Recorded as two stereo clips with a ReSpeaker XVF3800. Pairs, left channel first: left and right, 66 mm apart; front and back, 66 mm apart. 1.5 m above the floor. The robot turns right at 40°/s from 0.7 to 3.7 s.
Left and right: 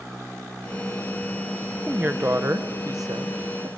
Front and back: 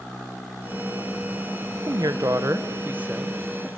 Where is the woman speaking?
160° right, 0.9 m; by 3.7 s 85° right, 0.9 m.